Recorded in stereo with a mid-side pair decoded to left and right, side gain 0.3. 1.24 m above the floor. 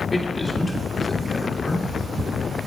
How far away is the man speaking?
About 2.5 m.